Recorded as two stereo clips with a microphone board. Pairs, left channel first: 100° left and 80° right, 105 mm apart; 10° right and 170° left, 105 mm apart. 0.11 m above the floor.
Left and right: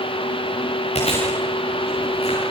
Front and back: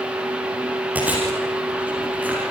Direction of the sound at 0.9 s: 95° left.